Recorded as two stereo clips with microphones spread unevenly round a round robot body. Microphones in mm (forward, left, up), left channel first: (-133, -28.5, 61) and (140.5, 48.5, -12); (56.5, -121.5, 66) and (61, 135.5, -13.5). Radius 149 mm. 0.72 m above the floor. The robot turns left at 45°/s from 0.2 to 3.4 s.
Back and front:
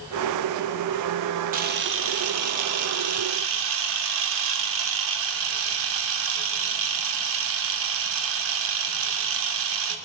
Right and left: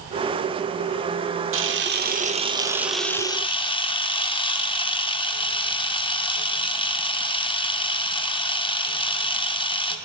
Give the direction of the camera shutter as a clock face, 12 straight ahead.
10 o'clock.